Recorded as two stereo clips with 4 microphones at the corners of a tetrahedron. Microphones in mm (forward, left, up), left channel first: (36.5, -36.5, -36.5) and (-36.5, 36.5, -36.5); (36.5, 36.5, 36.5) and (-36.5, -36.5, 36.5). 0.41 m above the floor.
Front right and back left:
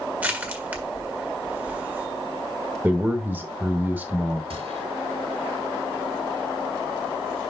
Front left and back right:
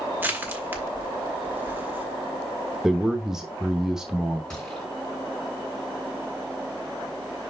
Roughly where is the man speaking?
Behind left.